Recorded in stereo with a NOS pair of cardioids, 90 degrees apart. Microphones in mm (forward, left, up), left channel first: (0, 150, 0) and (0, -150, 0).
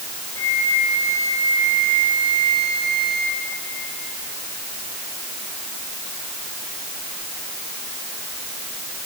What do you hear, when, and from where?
0.4 s a flute: 10° left, 2.5 m